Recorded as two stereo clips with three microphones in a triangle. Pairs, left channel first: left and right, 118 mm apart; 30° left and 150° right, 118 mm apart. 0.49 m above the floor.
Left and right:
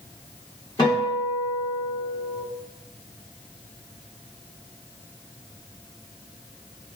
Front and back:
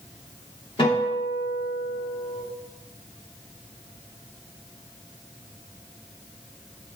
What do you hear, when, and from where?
0.8 s a guitar: 50° left, 2.0 m